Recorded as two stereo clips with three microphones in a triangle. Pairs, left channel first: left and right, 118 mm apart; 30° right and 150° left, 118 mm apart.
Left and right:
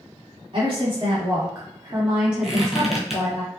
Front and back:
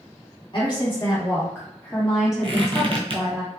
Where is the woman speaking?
65° right, 1.8 m; by 3.4 s 145° left, 1.4 m.